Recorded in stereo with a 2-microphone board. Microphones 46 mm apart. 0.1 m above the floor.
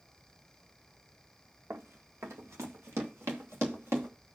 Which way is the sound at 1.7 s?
80° right.